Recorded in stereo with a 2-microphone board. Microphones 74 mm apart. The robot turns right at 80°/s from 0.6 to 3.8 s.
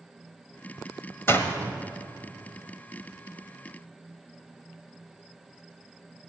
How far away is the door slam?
About 1.3 m.